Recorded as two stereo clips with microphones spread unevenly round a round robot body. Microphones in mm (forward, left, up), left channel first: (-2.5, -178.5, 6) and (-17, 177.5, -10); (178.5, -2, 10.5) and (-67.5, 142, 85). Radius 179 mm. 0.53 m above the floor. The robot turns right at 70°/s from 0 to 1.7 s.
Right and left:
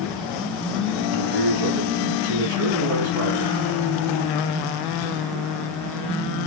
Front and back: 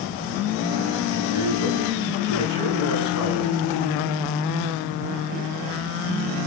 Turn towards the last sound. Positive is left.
turn(degrees=135)